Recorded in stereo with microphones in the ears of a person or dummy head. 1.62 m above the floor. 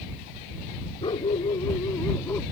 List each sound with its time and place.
1.0 s a dog barking: 30° left (ahead or behind); by 2.4 s 15° left (ahead or behind)